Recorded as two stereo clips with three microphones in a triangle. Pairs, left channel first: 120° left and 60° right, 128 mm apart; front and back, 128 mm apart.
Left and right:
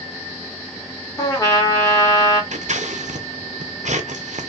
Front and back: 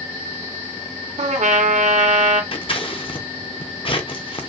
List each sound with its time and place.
1.2 s a trumpet: straight behind, 0.9 m
2.5 s scissors: 40° right, 0.6 m